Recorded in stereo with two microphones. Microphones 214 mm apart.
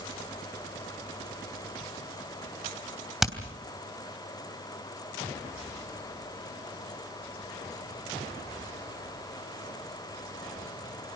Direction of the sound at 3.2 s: Centre (ahead or behind).